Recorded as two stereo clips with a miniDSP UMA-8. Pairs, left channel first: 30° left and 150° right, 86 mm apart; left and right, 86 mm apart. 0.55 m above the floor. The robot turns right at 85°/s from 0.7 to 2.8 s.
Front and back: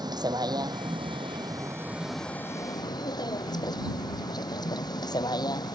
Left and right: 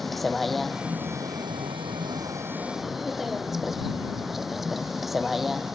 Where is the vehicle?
Straight behind; by 5.8 s 5° right.